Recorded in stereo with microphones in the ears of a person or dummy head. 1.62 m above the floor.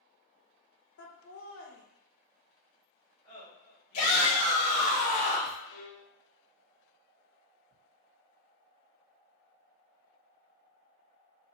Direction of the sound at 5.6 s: 90° left.